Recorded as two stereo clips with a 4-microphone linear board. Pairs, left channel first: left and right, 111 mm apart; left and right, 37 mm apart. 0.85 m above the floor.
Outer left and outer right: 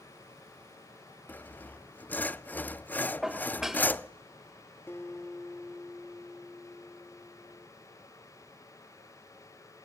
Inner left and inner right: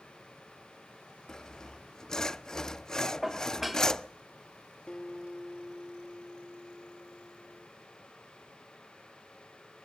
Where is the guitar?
20° left (ahead or behind), 2.0 m.